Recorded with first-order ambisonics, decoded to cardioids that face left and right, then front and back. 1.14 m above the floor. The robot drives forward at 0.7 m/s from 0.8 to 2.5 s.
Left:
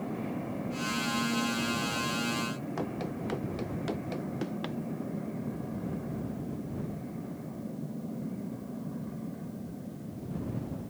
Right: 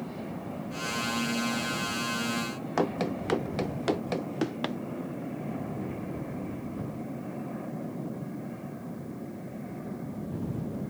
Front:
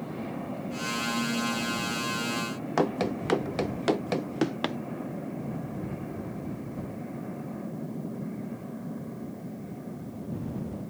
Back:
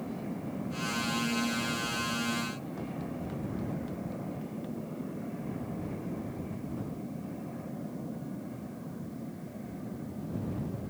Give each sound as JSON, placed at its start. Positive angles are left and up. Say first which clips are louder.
{"t": 2.8, "sound": "running footsteps", "louder": "right 11 dB, front 12 dB", "azimuth_deg": -30}